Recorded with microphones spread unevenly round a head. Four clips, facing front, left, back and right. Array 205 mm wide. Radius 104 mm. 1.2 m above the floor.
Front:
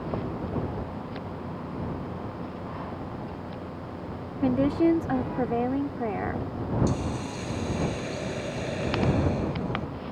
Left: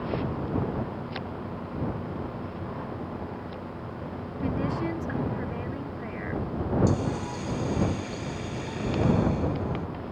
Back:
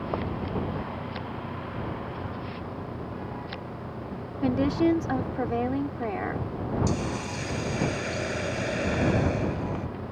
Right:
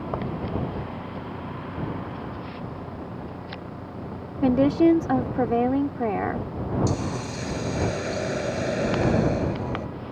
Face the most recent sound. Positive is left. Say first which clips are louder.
# even, even
turn(degrees=-95)